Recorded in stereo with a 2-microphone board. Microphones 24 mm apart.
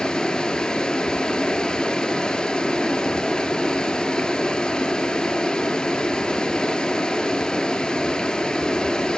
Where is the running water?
35° left (ahead or behind), 0.7 m.